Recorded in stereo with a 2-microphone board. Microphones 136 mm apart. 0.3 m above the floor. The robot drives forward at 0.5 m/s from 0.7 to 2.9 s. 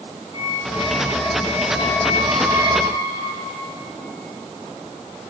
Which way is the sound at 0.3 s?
35° right (ahead or behind).